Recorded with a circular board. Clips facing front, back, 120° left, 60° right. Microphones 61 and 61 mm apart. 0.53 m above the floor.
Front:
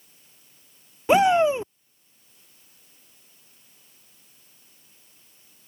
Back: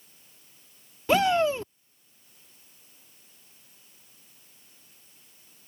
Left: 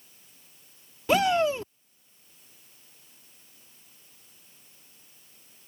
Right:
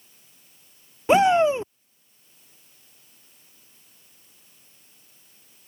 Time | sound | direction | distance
1.1 | a shout | 40° right | ?